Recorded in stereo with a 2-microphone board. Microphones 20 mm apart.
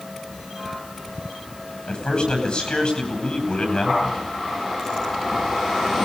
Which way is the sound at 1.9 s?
60° left (ahead or behind).